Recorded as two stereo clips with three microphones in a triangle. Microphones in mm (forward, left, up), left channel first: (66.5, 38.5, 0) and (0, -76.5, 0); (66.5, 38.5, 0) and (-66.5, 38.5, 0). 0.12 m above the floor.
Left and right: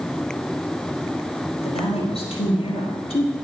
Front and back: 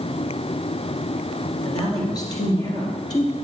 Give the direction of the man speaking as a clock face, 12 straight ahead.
10 o'clock.